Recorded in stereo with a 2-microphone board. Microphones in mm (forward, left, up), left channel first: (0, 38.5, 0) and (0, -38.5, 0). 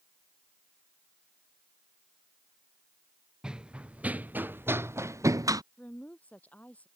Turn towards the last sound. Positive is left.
turn(degrees=20)  # may be behind; listen again after turning